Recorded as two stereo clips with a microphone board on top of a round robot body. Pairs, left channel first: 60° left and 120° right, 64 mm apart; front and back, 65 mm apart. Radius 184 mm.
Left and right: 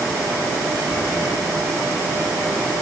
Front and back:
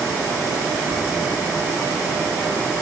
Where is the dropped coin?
No dropped coin in this recording.